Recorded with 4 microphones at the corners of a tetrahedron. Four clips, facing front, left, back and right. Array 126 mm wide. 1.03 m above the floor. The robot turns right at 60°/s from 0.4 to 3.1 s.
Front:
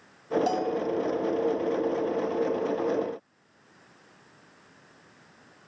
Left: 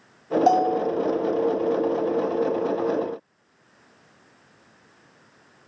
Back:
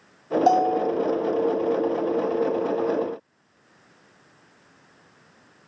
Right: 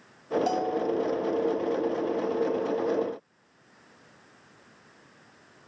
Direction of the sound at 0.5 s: 135° left.